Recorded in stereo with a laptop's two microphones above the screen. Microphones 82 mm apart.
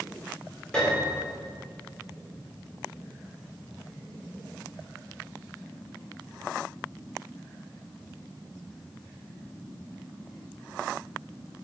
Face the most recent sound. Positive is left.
turn(degrees=10)  # may be behind; listen again after turning